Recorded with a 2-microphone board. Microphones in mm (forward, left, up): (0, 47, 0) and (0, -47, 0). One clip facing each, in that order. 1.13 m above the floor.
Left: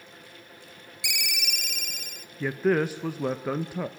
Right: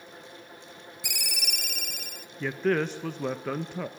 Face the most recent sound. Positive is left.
turn(degrees=10)  # may be behind; listen again after turning